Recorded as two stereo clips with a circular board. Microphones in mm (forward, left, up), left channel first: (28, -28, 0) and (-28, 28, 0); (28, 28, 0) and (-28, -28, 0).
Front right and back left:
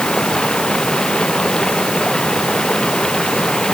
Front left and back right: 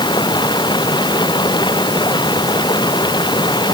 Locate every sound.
0.0 s running water: 35° left